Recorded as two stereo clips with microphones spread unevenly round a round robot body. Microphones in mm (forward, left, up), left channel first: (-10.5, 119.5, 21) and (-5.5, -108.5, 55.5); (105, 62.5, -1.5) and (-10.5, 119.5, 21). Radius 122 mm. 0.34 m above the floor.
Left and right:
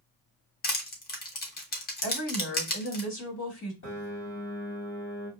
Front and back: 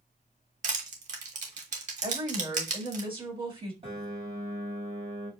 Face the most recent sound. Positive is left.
turn(degrees=110)